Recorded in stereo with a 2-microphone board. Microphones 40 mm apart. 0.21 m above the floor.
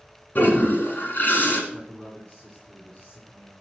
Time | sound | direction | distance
0.3 | a toilet flushing | 50° left (ahead or behind) | 1.9 m
1.7 | a man speaking | 35° left (ahead or behind) | 2 m